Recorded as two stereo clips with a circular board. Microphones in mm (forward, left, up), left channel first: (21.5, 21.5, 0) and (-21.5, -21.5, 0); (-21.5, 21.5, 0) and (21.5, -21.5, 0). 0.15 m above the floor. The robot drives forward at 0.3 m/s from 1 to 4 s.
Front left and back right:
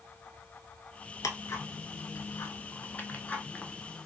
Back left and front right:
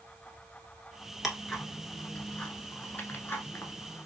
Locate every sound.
1.2 s ticking: 45° left, 0.9 m; by 4.1 s 120° left, 0.7 m